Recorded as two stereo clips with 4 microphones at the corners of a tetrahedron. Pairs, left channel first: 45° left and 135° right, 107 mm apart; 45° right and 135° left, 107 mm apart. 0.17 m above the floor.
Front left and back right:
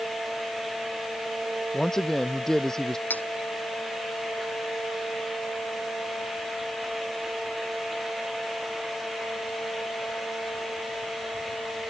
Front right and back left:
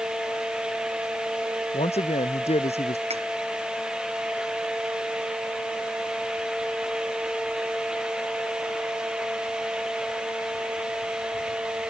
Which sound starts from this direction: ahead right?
A man speaking, at 1.7 s.